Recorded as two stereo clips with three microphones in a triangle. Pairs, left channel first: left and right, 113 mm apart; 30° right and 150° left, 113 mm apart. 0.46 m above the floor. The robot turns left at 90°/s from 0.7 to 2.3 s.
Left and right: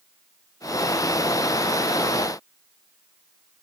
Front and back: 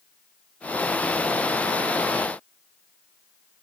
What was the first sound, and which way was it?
Only background noise.